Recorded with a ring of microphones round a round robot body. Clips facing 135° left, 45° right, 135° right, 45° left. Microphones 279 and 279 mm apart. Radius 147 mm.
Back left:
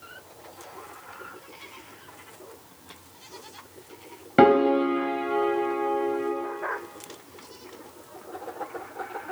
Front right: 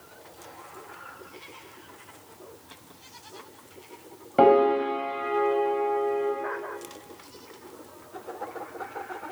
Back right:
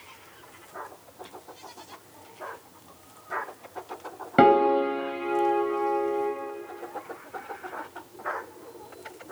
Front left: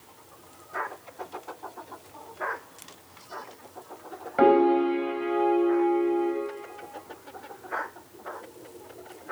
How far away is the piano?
About 2.5 m.